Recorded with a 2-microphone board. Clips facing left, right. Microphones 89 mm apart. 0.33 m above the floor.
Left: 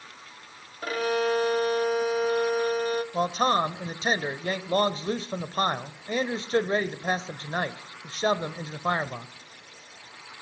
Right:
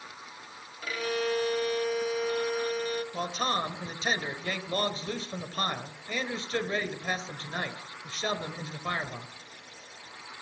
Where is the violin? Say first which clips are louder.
Left 5 dB; 45° left (ahead or behind), 1.0 m.